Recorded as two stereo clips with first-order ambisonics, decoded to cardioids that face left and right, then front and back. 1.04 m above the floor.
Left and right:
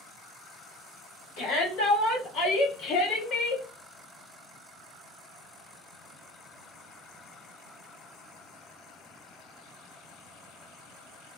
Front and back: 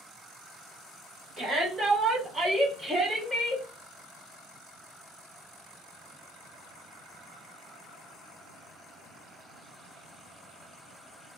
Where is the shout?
120° left, 1.8 m; by 3.6 s 65° left, 0.7 m.